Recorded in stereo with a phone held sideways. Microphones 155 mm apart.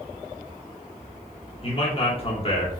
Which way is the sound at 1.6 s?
40° left (ahead or behind).